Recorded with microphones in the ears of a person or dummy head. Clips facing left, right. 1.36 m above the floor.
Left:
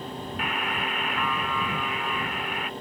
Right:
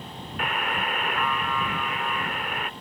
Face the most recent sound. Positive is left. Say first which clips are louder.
# right 3 dB
turn(degrees=-50)  # may be behind; listen again after turning